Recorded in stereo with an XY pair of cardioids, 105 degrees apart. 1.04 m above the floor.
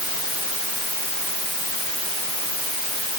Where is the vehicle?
No vehicle in this recording.